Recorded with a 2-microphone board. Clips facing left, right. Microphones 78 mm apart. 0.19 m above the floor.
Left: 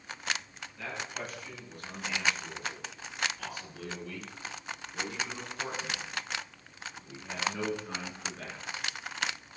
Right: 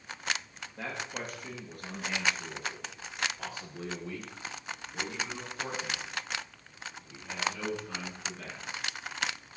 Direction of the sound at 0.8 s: 55° right (ahead or behind).